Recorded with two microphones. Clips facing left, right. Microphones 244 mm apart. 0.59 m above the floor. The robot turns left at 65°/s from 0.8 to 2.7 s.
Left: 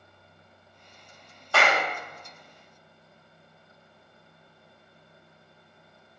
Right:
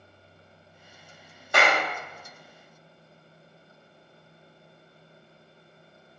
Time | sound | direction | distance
1.5 | a clap | 15° right (ahead or behind) | 0.6 m